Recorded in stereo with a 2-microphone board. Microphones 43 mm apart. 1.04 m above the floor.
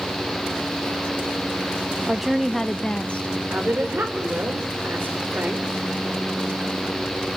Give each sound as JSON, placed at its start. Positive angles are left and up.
{"t": 2.1, "sound": "a woman speaking", "side_deg": -10, "distance_m": 0.6}
{"t": 3.5, "sound": "a woman speaking", "side_deg": -55, "distance_m": 4.0}